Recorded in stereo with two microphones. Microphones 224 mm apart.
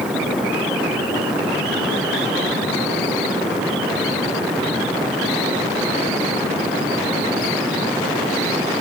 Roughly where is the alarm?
No alarm in this recording.